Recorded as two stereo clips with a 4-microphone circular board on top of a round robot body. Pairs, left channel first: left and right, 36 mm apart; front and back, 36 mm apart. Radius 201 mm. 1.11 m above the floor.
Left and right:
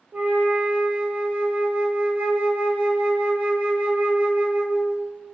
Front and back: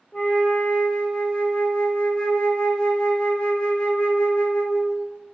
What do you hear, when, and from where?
0.1 s a flute: 55° right, 2 m